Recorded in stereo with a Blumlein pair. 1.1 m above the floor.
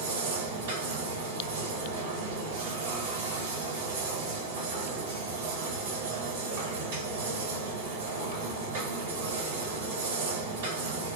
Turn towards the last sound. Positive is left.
turn(degrees=-55)